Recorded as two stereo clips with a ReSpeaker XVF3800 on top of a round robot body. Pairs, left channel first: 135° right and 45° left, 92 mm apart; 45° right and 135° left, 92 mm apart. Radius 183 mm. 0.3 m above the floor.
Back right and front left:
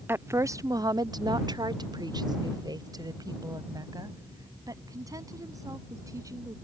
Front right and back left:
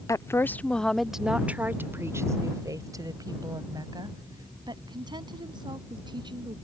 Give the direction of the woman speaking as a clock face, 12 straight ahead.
12 o'clock.